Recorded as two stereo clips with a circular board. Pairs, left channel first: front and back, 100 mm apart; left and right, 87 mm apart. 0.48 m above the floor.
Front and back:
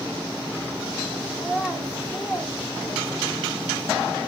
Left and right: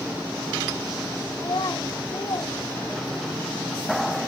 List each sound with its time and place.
1.4 s a child speaking: 110° left, 1.4 m